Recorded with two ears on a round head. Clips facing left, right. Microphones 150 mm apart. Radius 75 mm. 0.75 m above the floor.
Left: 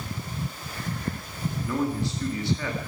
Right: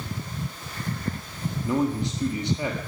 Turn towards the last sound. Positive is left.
turn(degrees=-20)  # may be behind; listen again after turning